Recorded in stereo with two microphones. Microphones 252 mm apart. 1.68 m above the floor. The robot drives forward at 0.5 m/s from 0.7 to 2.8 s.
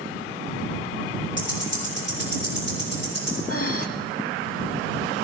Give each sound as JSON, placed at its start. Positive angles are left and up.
{"t": 1.4, "sound": "ticking", "side_deg": -50, "distance_m": 4.0}
{"t": 3.5, "sound": "breathing", "side_deg": 65, "distance_m": 1.2}